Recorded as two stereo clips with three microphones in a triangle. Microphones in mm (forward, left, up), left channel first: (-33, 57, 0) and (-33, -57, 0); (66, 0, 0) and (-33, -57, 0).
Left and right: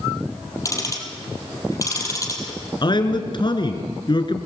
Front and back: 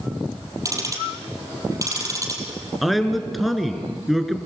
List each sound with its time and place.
0.7 s ticking: 150° left, 4 m
2.8 s a man speaking: 120° left, 2.5 m